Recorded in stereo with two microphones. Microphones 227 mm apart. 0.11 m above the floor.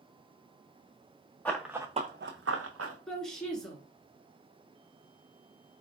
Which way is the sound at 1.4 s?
5° left (ahead or behind).